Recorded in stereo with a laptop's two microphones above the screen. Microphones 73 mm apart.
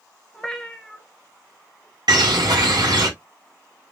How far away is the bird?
About 1.9 m.